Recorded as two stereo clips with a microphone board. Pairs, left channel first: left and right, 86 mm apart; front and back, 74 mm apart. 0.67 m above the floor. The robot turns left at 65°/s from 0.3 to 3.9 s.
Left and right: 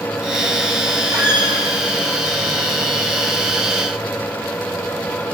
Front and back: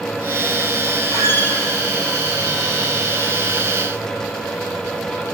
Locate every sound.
1.1 s a squeak: 45° right, 2.5 m; by 1.6 s 75° right, 2.5 m